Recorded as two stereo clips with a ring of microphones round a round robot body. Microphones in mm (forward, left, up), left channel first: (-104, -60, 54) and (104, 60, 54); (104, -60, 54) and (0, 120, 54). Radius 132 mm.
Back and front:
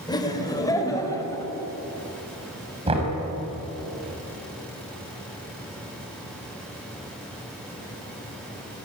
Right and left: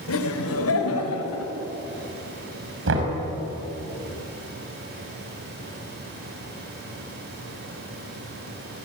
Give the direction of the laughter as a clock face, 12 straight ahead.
3 o'clock.